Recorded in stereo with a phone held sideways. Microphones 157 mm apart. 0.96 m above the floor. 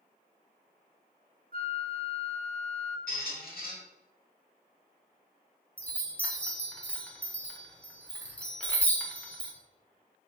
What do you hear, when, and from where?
1.5 s a flute: 65° right (ahead or behind), 0.7 m
3.1 s a squeak: 75° left (ahead or behind), 1.2 m
5.8 s a chime: 10° left (ahead or behind), 0.7 m